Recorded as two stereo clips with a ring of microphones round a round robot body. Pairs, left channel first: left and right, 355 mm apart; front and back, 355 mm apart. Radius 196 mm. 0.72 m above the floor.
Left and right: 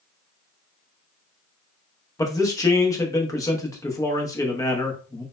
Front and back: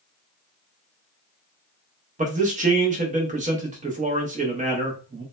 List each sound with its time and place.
2.2 s a man speaking: 155° left, 0.6 m